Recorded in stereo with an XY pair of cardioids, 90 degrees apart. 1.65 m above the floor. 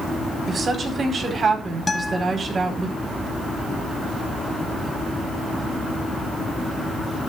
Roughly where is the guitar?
Ahead.